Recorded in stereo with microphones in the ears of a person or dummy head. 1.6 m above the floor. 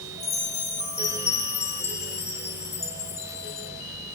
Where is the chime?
35° left (ahead or behind), 4 m.